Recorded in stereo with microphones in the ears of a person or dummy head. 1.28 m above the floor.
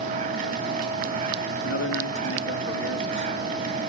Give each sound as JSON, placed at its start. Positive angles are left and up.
{"t": 0.0, "sound": "a machine running", "side_deg": -40, "distance_m": 2.5}
{"t": 1.6, "sound": "a man speaking", "side_deg": 70, "distance_m": 1.7}